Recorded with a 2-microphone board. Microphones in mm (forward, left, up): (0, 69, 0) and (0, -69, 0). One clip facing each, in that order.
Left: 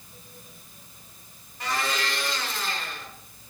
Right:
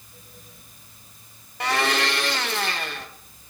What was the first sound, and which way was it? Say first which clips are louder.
A blender: right 6 dB; 75° right (ahead or behind).